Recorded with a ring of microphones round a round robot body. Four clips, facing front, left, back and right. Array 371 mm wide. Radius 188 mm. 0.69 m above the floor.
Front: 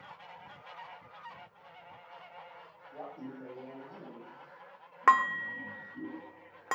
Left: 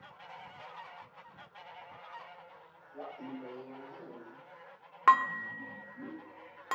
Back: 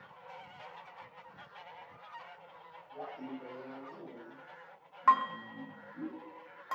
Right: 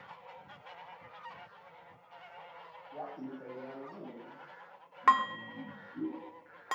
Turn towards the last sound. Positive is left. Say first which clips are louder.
# left 2 dB, front 2 dB
turn(degrees=10)